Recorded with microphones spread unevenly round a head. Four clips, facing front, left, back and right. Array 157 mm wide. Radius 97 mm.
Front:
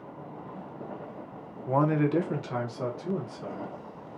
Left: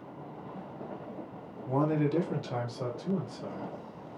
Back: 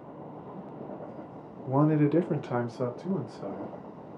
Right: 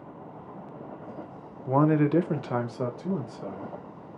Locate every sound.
1.7 s a man speaking: 35° right, 0.8 m; by 3.7 s 85° right, 2.0 m